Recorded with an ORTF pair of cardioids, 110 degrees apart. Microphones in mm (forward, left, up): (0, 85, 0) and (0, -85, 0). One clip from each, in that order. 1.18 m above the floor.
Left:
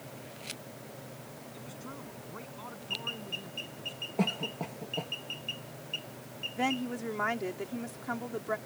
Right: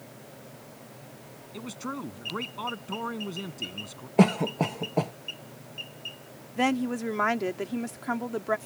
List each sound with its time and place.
1.5 s a man speaking: 70° right
4.2 s a cough: 70° right
6.6 s a woman speaking: 40° right